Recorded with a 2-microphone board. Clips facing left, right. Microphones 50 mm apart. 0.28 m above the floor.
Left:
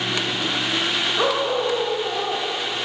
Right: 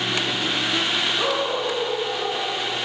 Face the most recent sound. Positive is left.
turn(degrees=65)  # may be behind; listen again after turning